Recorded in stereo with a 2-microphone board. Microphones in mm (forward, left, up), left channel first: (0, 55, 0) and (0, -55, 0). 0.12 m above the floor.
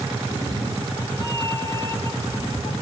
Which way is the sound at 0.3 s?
30° left (ahead or behind).